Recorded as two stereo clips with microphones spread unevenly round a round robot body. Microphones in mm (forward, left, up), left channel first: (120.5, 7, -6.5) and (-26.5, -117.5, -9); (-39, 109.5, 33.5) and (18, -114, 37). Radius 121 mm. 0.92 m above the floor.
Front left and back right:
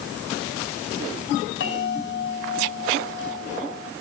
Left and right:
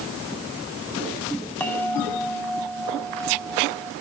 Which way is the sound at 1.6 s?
20° left.